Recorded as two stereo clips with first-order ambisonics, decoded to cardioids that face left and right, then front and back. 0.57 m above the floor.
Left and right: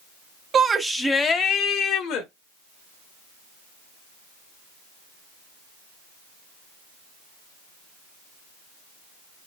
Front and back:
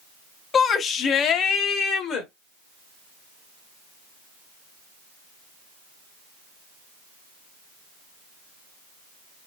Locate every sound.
0.5 s a shout: 50° right, 0.7 m; by 2.3 s 55° left, 1.3 m